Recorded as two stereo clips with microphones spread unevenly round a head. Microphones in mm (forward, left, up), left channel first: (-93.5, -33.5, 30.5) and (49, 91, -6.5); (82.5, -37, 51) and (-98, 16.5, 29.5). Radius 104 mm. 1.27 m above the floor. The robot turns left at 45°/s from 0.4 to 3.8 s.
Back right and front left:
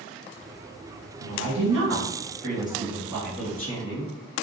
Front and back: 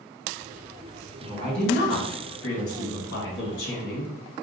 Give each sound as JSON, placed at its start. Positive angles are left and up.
{"t": 1.2, "sound": "a woman speaking", "azimuth_deg": 55, "distance_m": 1.3}